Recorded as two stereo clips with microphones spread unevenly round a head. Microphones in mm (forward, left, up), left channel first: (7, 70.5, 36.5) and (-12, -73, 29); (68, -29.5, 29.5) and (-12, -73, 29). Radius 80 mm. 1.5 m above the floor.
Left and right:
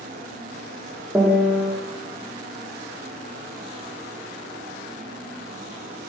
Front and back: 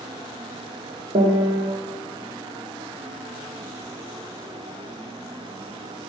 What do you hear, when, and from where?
1.1 s a piano: straight behind, 0.5 m